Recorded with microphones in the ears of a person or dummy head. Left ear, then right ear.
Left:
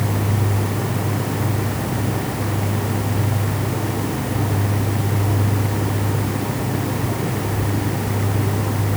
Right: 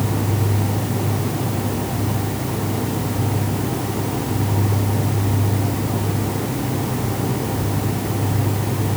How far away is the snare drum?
No snare drum in this recording.